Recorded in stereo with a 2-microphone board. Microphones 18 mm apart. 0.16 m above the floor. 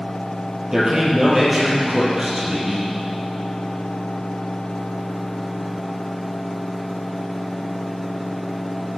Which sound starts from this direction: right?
A man speaking, at 0.7 s.